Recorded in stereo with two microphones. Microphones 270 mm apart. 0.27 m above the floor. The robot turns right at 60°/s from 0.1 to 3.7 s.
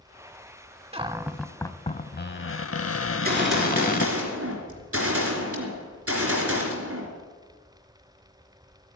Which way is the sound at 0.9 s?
30° right.